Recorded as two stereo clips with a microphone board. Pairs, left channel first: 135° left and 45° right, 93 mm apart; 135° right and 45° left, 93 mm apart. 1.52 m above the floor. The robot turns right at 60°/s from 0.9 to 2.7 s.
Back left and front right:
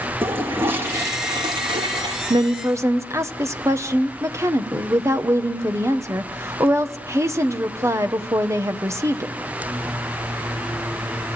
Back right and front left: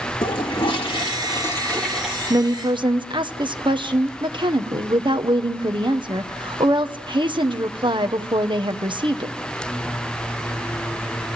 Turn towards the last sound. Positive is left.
turn(degrees=15)